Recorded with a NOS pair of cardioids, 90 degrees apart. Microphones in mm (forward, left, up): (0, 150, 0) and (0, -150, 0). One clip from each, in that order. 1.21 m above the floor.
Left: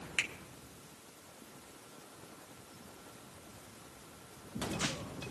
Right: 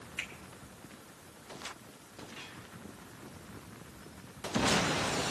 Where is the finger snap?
65° left, 1.4 m.